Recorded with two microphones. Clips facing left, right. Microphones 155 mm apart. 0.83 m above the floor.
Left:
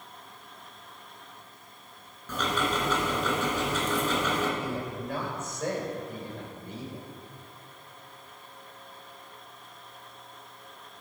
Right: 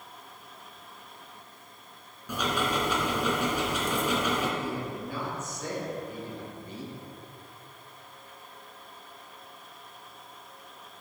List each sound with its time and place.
2.3 s ticking: 10° right (ahead or behind), 3 m
4.6 s a man speaking: 65° left (ahead or behind), 4 m